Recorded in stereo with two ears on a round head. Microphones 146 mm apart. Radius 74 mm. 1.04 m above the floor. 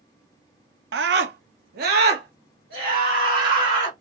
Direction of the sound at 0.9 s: 75° right (ahead or behind).